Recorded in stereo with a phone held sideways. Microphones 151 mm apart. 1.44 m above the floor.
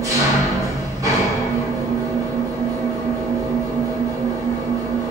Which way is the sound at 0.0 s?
20° right (ahead or behind).